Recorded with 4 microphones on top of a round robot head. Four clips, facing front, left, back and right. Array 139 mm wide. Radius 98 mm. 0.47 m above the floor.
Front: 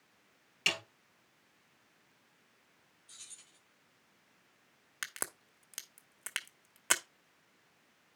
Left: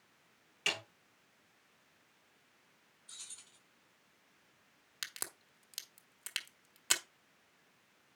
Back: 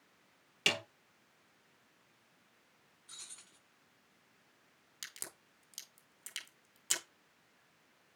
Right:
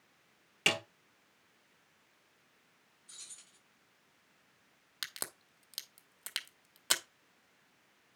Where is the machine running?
I don't hear a machine running.